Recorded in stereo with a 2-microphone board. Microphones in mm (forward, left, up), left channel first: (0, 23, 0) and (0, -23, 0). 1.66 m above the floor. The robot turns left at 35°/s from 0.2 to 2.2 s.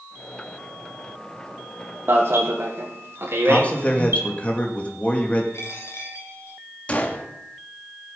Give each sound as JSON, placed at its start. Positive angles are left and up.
{"t": 2.1, "sound": "an alarm", "side_deg": -55, "distance_m": 2.0}
{"t": 3.5, "sound": "a man speaking", "side_deg": 30, "distance_m": 2.0}
{"t": 5.5, "sound": "a dropped coin", "side_deg": 60, "distance_m": 3.5}
{"t": 6.9, "sound": "a gunshot", "side_deg": 25, "distance_m": 1.4}